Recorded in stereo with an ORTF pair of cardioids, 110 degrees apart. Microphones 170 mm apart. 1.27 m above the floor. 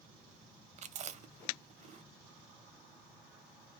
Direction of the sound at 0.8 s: 45° right.